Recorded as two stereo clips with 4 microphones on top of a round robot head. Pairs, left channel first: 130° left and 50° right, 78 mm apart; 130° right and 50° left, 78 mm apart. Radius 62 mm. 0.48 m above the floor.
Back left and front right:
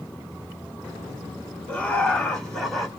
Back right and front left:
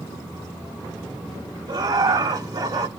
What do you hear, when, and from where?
1.7 s laughter: 60° left, 2.5 m; by 2.9 s 40° left, 2 m